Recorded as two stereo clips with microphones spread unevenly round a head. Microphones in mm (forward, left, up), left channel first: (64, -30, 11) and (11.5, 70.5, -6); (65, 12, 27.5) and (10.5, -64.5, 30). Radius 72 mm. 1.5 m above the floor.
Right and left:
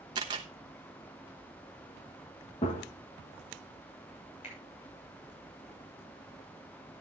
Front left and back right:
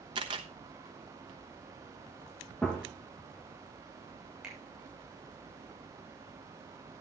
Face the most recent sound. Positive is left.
turn(degrees=-45)